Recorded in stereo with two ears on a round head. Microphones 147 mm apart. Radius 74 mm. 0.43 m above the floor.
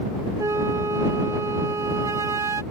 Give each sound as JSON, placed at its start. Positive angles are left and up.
{"t": 0.4, "sound": "a flute", "side_deg": -20}